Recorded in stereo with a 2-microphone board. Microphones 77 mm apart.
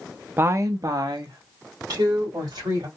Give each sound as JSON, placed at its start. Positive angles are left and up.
{"t": 0.4, "sound": "a woman speaking", "side_deg": -30, "distance_m": 0.5}